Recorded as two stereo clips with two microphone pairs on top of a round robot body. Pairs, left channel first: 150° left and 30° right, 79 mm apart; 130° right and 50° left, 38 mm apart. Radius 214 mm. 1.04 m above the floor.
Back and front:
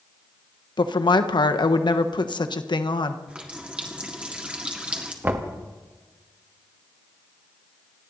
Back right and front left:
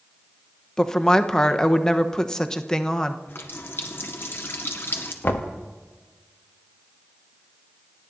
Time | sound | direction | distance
0.8 | a woman speaking | 165° left | 1.2 m
3.3 | a running tap | 105° right | 1.7 m
5.2 | knocking | 95° right | 1.0 m